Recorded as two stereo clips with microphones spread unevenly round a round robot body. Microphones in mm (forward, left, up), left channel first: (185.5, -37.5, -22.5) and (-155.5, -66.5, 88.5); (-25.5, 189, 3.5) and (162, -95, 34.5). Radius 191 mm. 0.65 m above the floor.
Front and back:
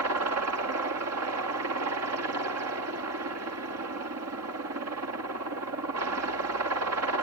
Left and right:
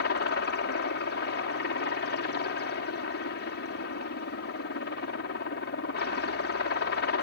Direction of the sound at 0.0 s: 140° left.